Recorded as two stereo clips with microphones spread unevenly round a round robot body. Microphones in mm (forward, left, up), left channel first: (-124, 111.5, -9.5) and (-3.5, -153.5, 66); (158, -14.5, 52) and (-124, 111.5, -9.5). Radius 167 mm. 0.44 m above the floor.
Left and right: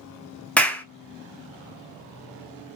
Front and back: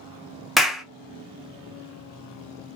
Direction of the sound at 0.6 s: 105° left.